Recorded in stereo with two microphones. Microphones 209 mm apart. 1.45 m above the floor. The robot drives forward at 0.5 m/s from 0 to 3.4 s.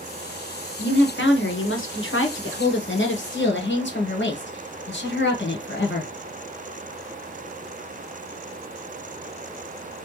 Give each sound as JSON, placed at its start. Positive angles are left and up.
{"t": 0.8, "sound": "a woman speaking", "side_deg": 55, "distance_m": 1.4}